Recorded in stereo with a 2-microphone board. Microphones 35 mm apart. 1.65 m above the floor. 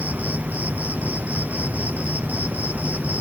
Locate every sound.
0.0 s an insect: 55° right (ahead or behind)